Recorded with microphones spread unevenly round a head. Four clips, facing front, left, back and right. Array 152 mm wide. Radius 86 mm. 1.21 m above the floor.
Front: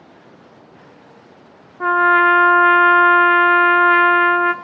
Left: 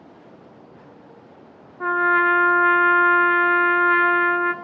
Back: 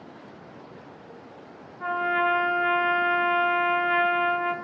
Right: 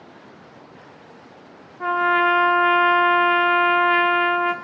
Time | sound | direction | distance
1.8 | a trumpet | straight ahead | 0.5 m